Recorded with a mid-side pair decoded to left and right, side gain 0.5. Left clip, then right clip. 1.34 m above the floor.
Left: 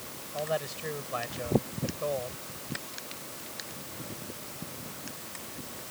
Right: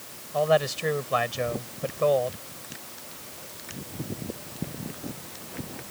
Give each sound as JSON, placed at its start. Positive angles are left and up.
{"t": 0.3, "sound": "a man speaking", "azimuth_deg": -55}